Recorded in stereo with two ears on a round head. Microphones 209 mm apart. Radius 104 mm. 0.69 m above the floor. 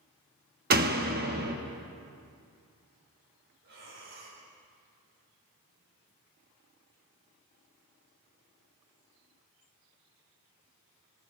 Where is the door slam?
40° right (ahead or behind), 0.7 m.